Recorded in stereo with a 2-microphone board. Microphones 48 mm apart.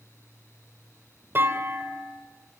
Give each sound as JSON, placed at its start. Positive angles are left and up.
{"t": 1.4, "sound": "a clunk", "side_deg": -45, "distance_m": 2.5}